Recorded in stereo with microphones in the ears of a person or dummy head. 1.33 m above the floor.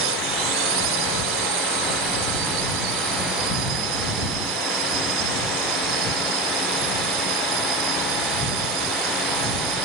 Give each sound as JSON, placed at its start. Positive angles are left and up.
{"t": 0.0, "sound": "a drone", "side_deg": -85}